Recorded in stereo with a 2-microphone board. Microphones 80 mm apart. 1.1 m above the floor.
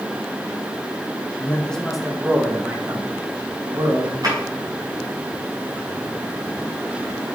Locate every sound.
1.4 s a man speaking: 25° left (ahead or behind), 1.6 m; by 4.1 s 60° right (ahead or behind), 2.5 m
4.2 s a drawer: 50° right (ahead or behind), 4.5 m